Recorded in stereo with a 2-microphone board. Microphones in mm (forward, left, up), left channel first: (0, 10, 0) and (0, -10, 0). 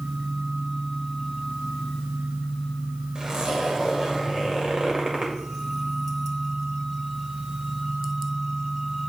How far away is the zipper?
About 1.9 m.